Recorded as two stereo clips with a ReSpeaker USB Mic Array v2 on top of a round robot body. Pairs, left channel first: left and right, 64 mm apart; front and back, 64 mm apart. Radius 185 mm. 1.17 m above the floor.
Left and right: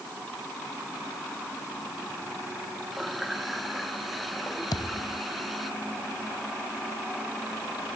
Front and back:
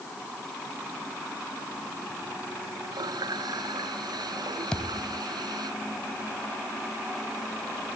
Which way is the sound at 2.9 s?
Straight behind.